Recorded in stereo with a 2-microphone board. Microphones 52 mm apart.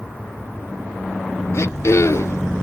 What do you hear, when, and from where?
1.5 s throat clearing: 60° left (ahead or behind), 0.5 m